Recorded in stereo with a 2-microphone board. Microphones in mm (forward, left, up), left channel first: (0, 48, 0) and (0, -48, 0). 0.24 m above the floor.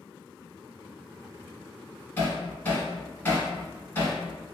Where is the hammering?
20° left (ahead or behind), 1.6 m.